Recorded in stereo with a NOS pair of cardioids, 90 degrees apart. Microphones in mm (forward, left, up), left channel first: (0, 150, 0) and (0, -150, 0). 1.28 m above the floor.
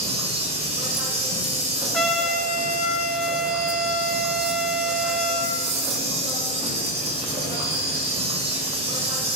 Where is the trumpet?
Straight ahead, 0.6 m.